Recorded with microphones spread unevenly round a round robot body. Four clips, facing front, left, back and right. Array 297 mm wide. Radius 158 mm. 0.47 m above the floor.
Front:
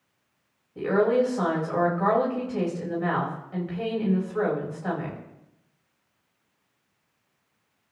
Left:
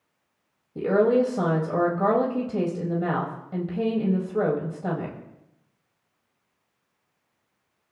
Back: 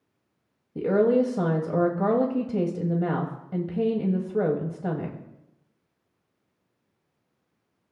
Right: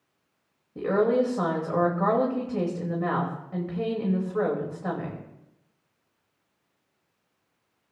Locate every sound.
0.8 s a woman speaking: 160° left, 2.5 m